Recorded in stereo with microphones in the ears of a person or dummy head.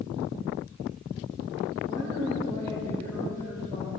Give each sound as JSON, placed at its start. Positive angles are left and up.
{"t": 1.8, "sound": "a woman speaking", "side_deg": 20, "distance_m": 6.0}